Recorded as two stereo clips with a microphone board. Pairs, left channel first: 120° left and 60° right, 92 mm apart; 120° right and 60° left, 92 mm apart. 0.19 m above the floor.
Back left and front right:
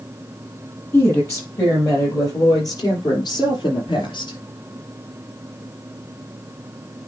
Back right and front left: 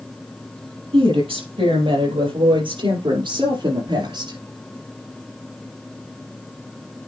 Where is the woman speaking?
60° left, 5 m; by 4.4 s 90° left, 4 m.